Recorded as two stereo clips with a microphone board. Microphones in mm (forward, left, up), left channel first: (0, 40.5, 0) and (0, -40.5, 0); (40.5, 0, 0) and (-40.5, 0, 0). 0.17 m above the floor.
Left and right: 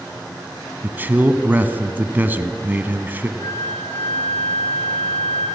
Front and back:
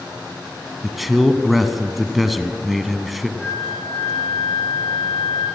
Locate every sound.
0.8 s a man speaking: 95° right, 1.4 m
3.4 s a flute: 75° left, 9 m